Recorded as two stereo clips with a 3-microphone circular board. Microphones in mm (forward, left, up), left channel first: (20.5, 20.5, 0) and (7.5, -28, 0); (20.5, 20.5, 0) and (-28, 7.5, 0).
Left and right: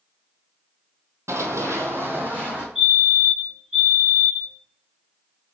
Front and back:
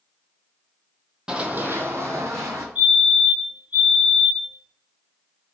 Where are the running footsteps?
95° right, 0.6 m; by 2.6 s 160° right, 1.4 m.